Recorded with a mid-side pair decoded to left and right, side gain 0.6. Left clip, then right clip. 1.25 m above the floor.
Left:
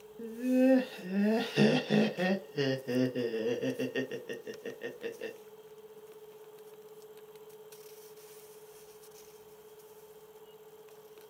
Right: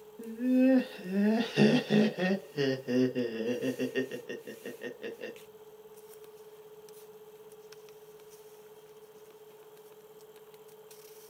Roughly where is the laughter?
Ahead.